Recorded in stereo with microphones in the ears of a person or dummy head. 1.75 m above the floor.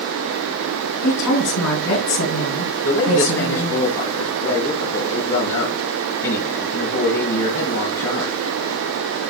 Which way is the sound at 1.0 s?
85° left.